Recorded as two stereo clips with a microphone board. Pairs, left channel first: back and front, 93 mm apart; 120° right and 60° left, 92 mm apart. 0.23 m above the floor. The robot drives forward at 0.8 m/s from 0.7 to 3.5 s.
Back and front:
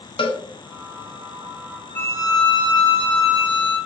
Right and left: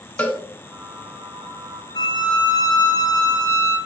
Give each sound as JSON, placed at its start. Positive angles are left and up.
{"t": 0.2, "sound": "a cowbell", "azimuth_deg": 170, "distance_m": 0.5}
{"t": 1.9, "sound": "a violin", "azimuth_deg": -120, "distance_m": 0.5}